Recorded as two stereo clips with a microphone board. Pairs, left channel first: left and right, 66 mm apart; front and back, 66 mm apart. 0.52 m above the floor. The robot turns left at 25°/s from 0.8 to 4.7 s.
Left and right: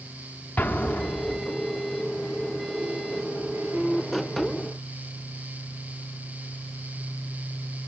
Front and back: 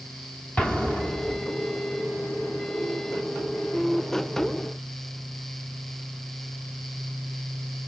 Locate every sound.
0.6 s an explosion: 50° left, 1.0 m; by 1.4 s 35° left, 1.0 m